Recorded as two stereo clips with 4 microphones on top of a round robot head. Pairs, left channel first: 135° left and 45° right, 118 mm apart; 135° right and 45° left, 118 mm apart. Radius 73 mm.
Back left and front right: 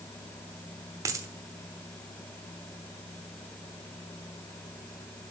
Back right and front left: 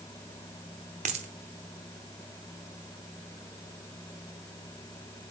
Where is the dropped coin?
15° left, 0.9 m.